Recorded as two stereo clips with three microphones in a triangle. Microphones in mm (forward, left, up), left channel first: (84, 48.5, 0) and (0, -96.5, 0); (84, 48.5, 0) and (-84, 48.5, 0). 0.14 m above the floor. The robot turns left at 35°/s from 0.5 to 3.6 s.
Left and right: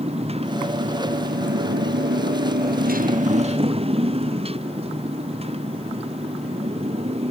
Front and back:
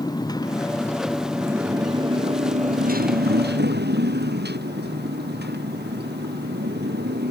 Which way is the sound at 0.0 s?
65° right.